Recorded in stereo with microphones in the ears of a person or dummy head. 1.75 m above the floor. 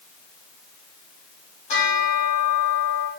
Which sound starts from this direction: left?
A bell, at 1.7 s.